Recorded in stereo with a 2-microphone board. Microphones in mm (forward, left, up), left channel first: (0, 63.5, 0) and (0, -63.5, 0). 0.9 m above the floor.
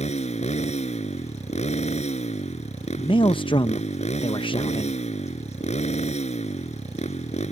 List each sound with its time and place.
0.0 s a motorcycle: 60° left (ahead or behind)
3.0 s a man speaking: 40° left (ahead or behind)